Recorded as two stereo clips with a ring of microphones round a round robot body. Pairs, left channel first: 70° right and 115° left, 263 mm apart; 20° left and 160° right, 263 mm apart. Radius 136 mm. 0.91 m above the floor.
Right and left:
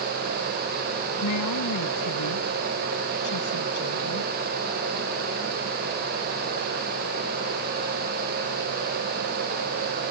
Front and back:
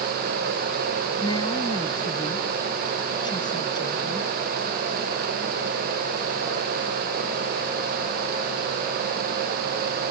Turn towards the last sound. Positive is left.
turn(degrees=-50)